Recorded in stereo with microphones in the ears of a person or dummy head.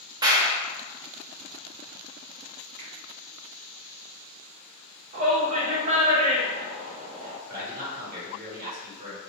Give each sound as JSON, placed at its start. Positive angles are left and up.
{"t": 0.2, "sound": "a clap", "side_deg": -25, "distance_m": 0.6}
{"t": 2.8, "sound": "a finger snap", "side_deg": -45, "distance_m": 1.7}
{"t": 5.1, "sound": "a shout", "side_deg": -35, "distance_m": 1.0}
{"t": 7.5, "sound": "a man speaking", "side_deg": -45, "distance_m": 1.5}